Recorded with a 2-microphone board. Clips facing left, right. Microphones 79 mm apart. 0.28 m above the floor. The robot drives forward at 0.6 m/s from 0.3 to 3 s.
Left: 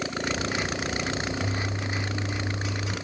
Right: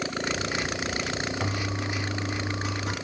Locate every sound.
1.4 s a toilet flushing: 60° right (ahead or behind), 2 m; by 3.0 s 50° right (ahead or behind), 2.5 m